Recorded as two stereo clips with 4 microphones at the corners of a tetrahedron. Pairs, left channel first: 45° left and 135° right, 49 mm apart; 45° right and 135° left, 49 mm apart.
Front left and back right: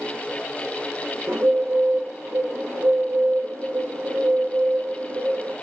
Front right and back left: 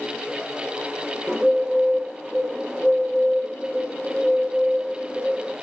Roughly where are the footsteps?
No footsteps in this recording.